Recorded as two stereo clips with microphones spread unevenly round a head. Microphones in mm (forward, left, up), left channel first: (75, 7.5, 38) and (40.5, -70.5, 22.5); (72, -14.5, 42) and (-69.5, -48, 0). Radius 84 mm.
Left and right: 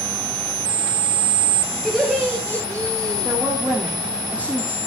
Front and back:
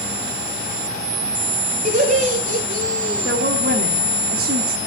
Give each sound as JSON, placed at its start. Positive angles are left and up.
{"t": 1.9, "sound": "laughter", "azimuth_deg": 160, "distance_m": 2.5}
{"t": 3.2, "sound": "a woman speaking", "azimuth_deg": 165, "distance_m": 1.9}